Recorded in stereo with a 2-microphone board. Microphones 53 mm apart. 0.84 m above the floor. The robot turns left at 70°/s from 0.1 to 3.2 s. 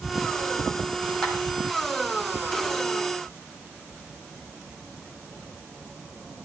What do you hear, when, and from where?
1.2 s a clap: 10° left (ahead or behind), 4.5 m; by 1.3 s centre (ahead or behind), 4.5 m